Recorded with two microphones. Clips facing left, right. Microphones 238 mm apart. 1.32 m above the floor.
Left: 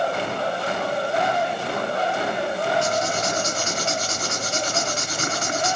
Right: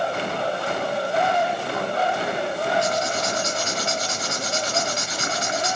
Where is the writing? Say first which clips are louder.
Left 1 dB; 50° left (ahead or behind), 1.8 m.